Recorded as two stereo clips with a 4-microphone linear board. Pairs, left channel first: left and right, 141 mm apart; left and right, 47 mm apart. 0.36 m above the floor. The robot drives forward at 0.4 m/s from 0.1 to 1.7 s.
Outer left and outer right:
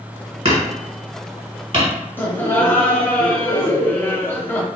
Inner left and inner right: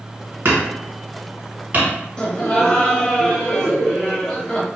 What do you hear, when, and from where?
0.5 s hammering: 55° right (ahead or behind), 1.5 m; by 1.9 s 40° right (ahead or behind), 1.8 m
2.2 s laughter: 15° left (ahead or behind), 0.9 m